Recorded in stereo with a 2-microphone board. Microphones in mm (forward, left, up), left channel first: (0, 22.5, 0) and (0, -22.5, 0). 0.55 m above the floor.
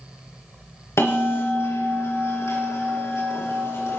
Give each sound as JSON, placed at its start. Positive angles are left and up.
{"t": 1.0, "sound": "a bell", "side_deg": 85, "distance_m": 5.5}